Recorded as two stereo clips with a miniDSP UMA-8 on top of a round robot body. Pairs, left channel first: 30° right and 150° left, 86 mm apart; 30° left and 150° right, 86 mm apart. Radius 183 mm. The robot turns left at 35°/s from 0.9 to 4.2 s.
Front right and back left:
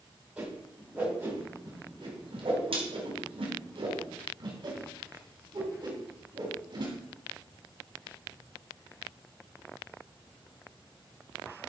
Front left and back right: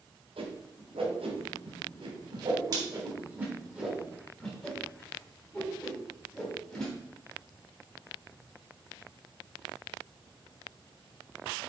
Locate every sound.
0.4 s a whoosh: 130° right, 3 m; by 6.9 s 110° left, 3 m